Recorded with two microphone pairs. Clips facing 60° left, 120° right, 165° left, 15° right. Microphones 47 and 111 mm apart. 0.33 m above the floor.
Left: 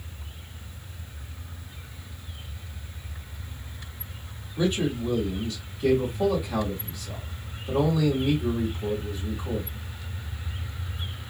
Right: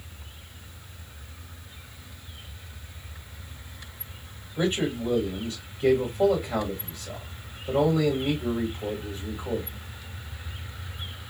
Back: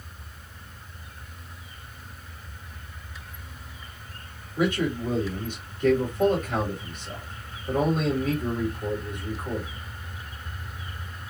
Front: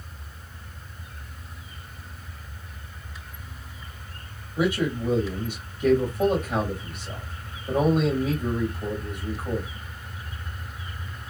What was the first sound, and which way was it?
A man speaking, 95° right.